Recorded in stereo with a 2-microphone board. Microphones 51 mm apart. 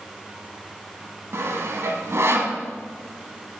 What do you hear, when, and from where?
1.3 s sawing: 65° right (ahead or behind), 0.9 m